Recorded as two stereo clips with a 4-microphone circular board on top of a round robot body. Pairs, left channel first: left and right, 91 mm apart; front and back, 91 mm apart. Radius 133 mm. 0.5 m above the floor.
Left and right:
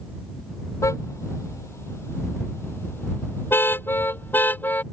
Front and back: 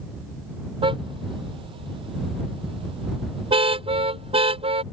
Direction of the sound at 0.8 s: 150° left.